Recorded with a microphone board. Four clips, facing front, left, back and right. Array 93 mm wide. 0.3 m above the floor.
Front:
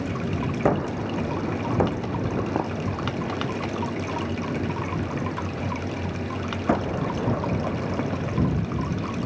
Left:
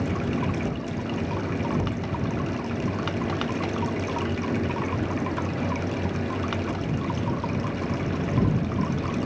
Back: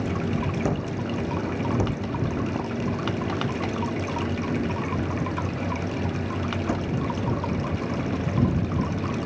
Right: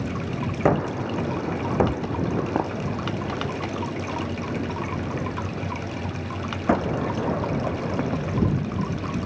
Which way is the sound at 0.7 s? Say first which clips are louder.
Right 7 dB, front 4 dB; 60° right.